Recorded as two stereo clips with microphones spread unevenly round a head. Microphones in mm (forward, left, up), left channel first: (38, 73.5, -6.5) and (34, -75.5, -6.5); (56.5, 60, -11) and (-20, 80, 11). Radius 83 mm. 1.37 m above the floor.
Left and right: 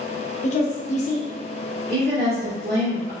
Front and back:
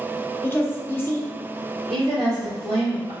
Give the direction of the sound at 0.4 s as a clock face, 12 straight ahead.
10 o'clock.